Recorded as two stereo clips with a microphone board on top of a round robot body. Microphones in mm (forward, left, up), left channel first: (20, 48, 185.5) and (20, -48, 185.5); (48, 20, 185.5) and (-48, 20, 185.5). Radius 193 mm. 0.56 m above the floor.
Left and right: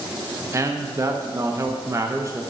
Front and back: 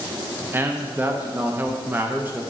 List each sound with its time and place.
0.5 s a man speaking: 125° right, 0.8 m